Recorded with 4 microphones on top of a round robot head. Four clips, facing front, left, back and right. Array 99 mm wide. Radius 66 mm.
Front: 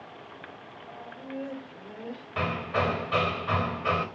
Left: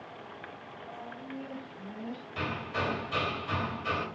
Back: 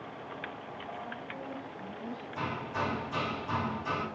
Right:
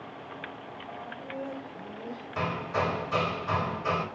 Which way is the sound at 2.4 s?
25° right.